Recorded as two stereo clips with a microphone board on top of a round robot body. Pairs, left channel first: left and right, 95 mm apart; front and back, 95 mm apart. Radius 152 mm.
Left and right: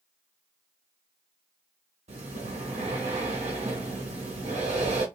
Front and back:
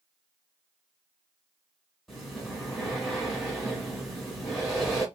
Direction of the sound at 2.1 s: 90° right.